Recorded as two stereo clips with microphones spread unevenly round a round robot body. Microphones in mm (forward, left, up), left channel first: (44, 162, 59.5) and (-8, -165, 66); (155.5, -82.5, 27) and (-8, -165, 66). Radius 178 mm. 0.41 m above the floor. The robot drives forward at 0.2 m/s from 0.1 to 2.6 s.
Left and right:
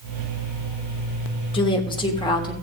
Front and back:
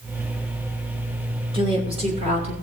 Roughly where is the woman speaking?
Behind left.